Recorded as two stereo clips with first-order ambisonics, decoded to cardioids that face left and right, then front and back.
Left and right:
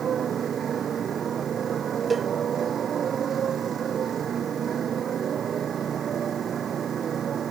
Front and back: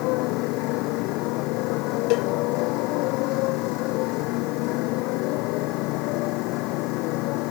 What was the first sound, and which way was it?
A motorcycle, 25° right.